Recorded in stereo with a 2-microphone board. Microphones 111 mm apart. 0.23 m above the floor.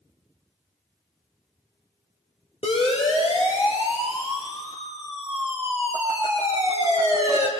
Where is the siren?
65° left (ahead or behind), 7 m.